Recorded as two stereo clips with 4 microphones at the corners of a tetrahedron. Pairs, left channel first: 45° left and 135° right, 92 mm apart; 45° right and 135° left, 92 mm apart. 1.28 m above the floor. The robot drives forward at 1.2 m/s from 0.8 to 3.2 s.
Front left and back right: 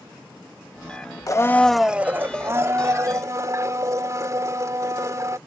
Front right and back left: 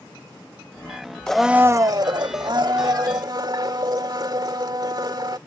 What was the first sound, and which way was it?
A blender, 35° left.